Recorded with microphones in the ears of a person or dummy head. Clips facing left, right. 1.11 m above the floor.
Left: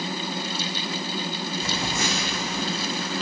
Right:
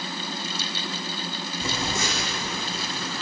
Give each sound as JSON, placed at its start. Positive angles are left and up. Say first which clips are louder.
{"t": 1.6, "sound": "a phone buzzing", "louder": "right 2 dB", "side_deg": -75, "distance_m": 4.0}